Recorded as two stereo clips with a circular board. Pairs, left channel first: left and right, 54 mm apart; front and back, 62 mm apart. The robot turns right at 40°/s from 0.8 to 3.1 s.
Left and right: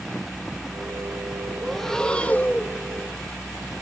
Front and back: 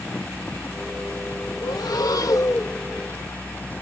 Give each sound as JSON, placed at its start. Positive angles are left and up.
{"t": 1.6, "sound": "breathing", "azimuth_deg": 0}